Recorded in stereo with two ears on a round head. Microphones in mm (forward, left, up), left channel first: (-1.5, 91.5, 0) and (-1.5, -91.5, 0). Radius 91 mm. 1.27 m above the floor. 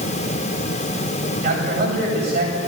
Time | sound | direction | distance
1.4 | a man speaking | 45° right (ahead or behind) | 8 m